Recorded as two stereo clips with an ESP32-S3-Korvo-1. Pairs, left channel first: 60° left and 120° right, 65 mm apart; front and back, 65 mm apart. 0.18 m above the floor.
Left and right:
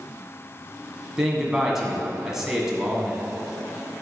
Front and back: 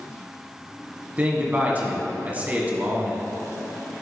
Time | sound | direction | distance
1.2 | a man speaking | 170° left | 1.7 m